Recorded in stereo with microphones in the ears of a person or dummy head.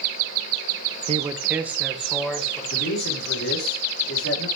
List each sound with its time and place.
1.1 s a man speaking: 30° right (ahead or behind), 0.8 m; by 2.6 s centre (ahead or behind), 3 m
2.7 s a man speaking: 80° left, 4.5 m